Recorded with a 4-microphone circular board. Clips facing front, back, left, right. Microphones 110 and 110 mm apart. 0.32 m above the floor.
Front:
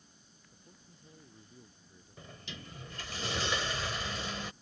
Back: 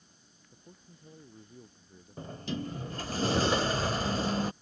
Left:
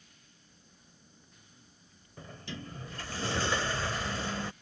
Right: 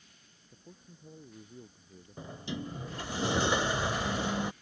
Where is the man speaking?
115° right; by 3.2 s 110° right.